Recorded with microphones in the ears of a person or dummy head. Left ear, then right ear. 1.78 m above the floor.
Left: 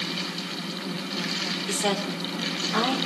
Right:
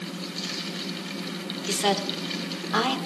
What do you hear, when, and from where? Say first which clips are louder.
1.7 s a woman speaking: right 5 dB; 15° right (ahead or behind), 2 m; by 3.0 s 35° right (ahead or behind), 2.5 m